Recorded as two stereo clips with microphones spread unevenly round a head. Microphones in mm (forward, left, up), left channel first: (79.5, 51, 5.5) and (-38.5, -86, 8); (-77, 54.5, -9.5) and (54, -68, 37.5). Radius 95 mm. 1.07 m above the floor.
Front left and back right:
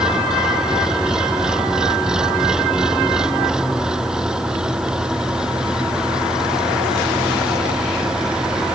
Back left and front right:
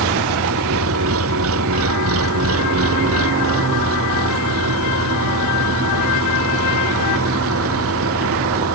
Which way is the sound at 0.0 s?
45° right.